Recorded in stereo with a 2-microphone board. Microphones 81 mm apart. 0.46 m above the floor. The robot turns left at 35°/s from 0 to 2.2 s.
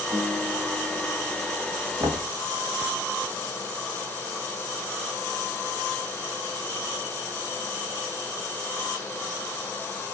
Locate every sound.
0.1 s a guitar: 25° right, 1.2 m; by 1.6 s 80° right, 1.2 m
2.0 s knocking: 50° right (ahead or behind), 1.2 m; by 2.3 s 55° right (ahead or behind), 1.2 m